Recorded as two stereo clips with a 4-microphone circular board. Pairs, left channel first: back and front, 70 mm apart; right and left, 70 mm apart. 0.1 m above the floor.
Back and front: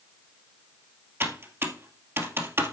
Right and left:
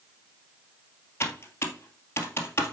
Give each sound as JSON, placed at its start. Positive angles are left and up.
{"t": 1.2, "sound": "typing on a keyboard", "azimuth_deg": -45, "distance_m": 2.0}